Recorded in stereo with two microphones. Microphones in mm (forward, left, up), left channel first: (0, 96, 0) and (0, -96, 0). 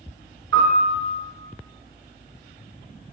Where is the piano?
85° right, 0.7 m.